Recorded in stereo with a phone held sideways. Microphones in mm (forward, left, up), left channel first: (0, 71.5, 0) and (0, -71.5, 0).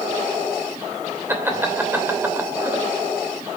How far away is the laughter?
About 2.5 m.